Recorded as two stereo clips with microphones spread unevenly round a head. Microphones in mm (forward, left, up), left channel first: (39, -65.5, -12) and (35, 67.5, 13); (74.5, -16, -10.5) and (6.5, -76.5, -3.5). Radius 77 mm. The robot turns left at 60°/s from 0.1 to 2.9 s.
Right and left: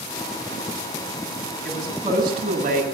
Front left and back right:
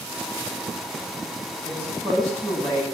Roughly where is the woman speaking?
Behind.